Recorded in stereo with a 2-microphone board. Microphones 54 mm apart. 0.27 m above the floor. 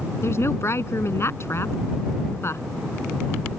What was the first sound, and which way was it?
A woman speaking, 50° left (ahead or behind).